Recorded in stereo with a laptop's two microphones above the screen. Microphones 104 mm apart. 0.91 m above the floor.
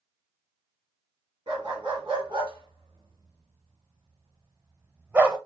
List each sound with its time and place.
1.5 s a dog barking: 45° right (ahead or behind), 2 m; by 5.4 s 10° right (ahead or behind), 0.8 m